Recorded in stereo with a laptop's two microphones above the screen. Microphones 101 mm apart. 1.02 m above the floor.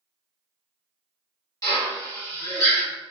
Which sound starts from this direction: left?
A drill, at 1.6 s.